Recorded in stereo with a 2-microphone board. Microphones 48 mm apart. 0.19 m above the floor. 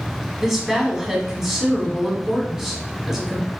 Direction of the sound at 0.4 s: 10° right (ahead or behind).